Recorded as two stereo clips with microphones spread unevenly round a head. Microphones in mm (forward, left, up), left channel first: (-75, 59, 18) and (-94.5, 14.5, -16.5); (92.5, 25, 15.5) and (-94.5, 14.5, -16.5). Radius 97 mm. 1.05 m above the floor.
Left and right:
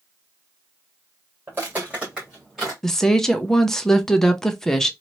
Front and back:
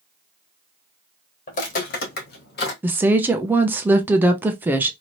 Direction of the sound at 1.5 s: 20° right.